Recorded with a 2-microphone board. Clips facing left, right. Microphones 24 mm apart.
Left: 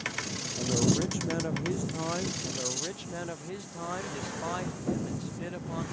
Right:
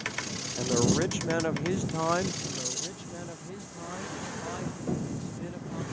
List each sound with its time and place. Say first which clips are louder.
0.6 s a man speaking: right 2 dB; 35° right (ahead or behind)
2.5 s a man speaking: left 1 dB; 20° left (ahead or behind)